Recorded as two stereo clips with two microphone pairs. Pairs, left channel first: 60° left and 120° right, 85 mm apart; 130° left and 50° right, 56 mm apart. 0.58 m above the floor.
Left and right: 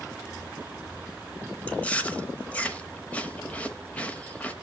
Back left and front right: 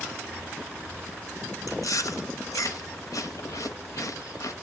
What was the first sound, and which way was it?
Chewing, 130° left.